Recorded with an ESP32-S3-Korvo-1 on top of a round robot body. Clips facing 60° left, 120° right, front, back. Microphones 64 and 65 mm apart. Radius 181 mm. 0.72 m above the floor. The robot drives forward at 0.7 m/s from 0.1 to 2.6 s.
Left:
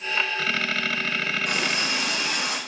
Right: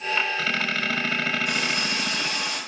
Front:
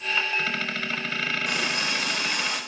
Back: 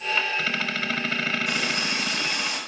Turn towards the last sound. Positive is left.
turn(degrees=40)